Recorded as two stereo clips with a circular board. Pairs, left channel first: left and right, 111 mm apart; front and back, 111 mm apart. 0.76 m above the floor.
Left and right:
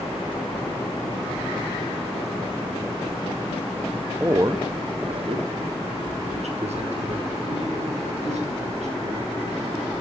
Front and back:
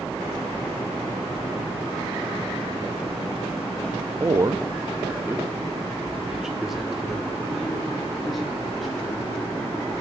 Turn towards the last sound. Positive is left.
turn(degrees=-90)